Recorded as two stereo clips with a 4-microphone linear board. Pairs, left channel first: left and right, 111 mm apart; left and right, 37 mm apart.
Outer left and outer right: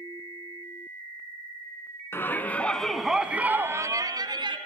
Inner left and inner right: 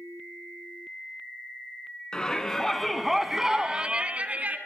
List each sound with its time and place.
2.1 s a shout: 20° left (ahead or behind), 2.5 m; by 4.6 s 45° right (ahead or behind), 2 m